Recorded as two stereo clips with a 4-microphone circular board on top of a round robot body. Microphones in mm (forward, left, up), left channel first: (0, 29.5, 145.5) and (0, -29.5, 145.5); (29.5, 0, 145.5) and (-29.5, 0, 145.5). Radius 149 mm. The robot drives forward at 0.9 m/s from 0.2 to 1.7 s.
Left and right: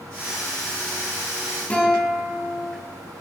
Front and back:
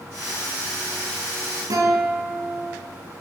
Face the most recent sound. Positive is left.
turn(degrees=160)